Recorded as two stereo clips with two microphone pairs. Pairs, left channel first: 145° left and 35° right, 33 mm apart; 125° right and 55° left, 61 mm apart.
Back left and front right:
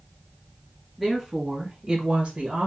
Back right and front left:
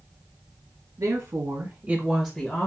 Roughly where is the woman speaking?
Ahead left.